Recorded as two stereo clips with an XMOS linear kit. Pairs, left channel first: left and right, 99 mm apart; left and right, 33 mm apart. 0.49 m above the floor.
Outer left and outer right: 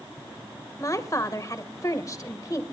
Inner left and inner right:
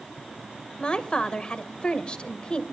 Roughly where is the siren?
No siren in this recording.